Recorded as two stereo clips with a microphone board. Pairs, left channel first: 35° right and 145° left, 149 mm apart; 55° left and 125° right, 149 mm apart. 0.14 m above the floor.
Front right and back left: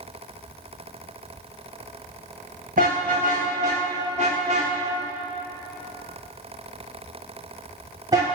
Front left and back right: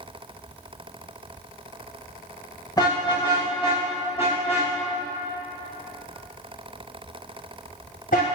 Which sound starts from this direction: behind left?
A car horn, at 2.8 s.